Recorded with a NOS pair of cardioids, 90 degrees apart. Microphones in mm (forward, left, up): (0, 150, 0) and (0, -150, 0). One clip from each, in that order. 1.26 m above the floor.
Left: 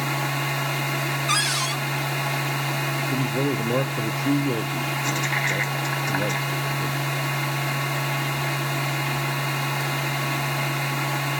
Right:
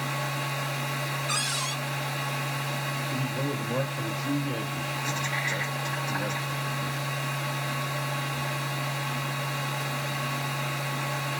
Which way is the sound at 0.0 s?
65° left.